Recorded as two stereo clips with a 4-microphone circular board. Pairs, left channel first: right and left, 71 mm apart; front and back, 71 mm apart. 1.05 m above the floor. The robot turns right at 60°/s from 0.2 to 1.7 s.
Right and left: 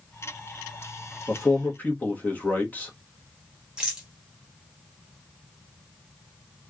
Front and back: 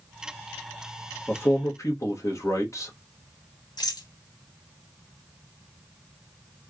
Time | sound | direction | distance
1.3 | a man speaking | 55° right | 1.3 m
3.8 | a rattle | 10° left | 1.1 m